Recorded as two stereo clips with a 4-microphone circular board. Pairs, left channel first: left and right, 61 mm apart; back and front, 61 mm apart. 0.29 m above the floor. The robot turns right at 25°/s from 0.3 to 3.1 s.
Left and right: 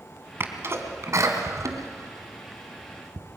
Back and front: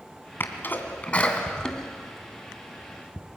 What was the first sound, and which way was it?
A sneeze, 135° right.